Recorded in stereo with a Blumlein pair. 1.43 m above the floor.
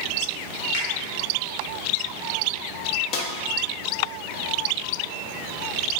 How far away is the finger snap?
About 1.6 m.